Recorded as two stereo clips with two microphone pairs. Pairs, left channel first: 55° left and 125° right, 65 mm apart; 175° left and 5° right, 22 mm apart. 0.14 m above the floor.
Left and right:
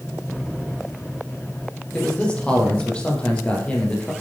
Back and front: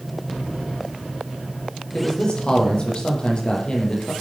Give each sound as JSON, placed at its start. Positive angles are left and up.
{"t": 1.9, "sound": "a man speaking", "azimuth_deg": 130, "distance_m": 5.5}